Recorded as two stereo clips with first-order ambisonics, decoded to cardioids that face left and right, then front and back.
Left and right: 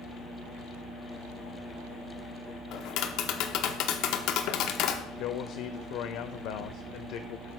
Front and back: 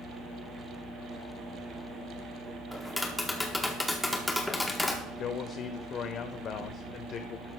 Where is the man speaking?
55° left, 0.6 m.